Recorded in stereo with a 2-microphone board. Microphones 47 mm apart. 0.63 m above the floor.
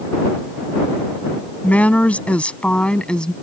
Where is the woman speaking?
35° left (ahead or behind); by 3.3 s 20° left (ahead or behind).